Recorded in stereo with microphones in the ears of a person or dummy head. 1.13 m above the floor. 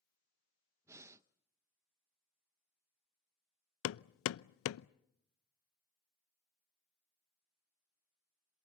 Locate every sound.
0.8 s breathing: 10° right (ahead or behind), 0.5 m
3.8 s hammering: 80° left, 0.5 m